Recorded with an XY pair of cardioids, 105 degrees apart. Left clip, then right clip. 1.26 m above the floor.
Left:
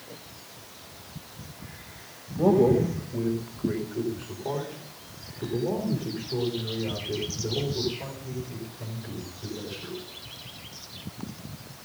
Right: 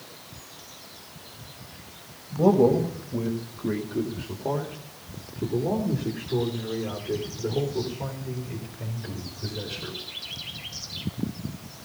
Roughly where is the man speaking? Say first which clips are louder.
Right 1 dB; ahead right.